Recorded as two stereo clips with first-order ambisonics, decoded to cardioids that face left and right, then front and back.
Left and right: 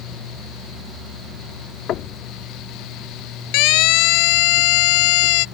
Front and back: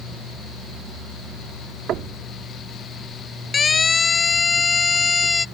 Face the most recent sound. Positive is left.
turn(degrees=80)